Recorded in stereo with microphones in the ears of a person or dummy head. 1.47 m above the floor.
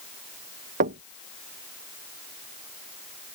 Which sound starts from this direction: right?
Knocking, at 0.8 s.